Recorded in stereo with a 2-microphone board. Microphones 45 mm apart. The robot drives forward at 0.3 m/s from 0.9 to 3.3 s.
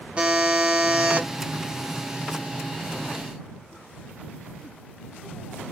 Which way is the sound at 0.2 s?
25° right (ahead or behind).